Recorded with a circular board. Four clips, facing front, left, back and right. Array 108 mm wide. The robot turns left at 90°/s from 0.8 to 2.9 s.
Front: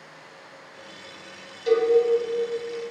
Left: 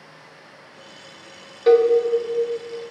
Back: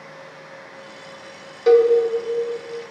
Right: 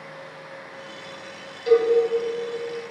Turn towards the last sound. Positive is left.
turn(degrees=25)